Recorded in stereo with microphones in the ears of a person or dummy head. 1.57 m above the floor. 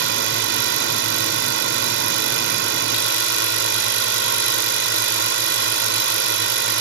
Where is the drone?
55° right (ahead or behind).